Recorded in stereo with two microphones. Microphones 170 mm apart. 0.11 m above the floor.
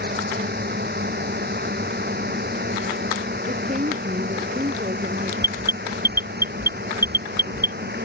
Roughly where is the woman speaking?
Right.